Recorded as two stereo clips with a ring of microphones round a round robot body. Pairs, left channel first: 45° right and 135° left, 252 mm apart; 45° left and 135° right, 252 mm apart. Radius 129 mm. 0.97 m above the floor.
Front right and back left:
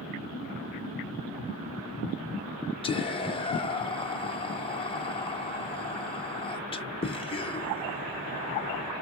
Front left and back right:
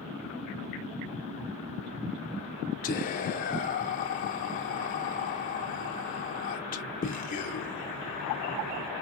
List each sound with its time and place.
2.8 s whispering: 10° left, 0.6 m